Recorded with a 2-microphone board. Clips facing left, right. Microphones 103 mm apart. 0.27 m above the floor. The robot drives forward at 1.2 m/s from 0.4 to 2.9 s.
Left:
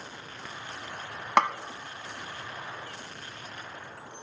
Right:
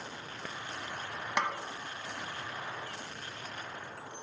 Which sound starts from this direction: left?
A snare drum, at 1.4 s.